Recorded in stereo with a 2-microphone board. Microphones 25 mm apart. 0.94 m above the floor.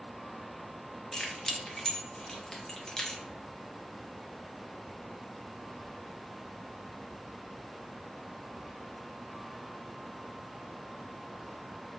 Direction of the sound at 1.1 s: 20° left (ahead or behind).